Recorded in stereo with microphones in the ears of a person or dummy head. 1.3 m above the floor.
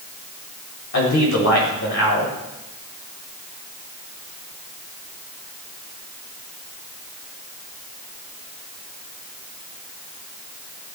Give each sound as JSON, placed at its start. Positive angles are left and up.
{"t": 0.9, "sound": "a man speaking", "side_deg": 75, "distance_m": 5.5}